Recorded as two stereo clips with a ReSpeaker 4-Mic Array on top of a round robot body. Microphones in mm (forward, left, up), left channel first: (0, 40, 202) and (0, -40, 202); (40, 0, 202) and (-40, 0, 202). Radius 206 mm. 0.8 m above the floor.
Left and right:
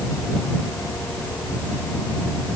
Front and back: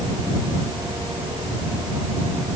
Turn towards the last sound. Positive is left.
No sound to turn to.